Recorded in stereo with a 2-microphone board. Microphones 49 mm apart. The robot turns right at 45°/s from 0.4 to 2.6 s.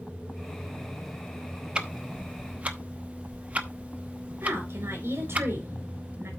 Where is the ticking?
20° right (ahead or behind), 0.9 m; by 5.4 s 30° right (ahead or behind), 0.9 m.